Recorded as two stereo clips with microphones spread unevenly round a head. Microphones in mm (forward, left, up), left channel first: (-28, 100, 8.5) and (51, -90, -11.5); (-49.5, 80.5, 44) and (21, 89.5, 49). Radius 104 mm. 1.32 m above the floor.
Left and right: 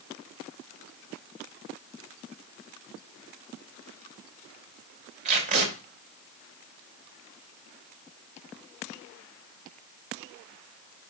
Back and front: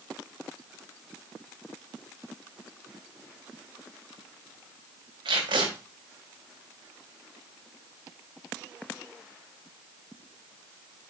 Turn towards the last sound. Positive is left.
turn(degrees=-10)